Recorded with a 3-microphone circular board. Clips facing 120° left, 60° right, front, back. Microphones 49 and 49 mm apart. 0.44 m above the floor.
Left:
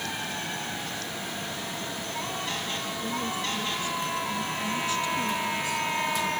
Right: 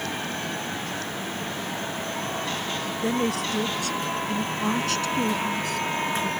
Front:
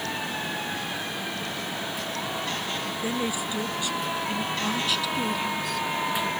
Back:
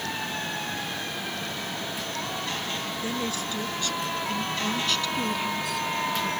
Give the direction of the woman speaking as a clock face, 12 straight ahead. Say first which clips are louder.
Right 7 dB, front 3 dB; 3 o'clock.